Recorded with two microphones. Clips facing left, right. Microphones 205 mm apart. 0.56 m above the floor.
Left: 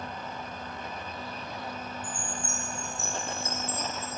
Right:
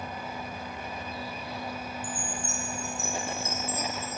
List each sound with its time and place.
2.0 s a chime: 30° left (ahead or behind), 2 m